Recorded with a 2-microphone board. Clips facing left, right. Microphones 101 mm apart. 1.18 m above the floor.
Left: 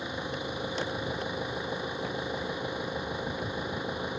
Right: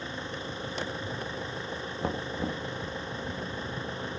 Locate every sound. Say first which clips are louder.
0.0 s an engine running: left 2 dB; 15° left (ahead or behind)
2.0 s knocking: right 1 dB; 45° right (ahead or behind)